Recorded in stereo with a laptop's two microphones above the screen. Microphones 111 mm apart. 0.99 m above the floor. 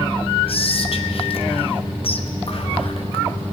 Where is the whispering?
55° left (ahead or behind), 0.8 m.